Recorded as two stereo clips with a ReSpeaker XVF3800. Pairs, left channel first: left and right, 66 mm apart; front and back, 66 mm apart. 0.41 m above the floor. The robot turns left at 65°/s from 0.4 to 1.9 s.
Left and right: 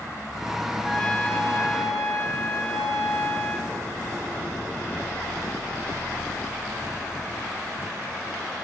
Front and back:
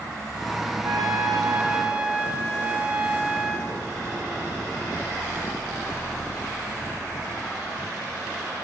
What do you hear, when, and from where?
0.8 s a trumpet: straight behind, 1.0 m; by 3.7 s 110° left, 1.0 m